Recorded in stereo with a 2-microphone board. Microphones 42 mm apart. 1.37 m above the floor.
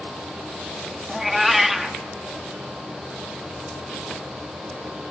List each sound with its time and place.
1.1 s a cat meowing: 5° right (ahead or behind), 1.1 m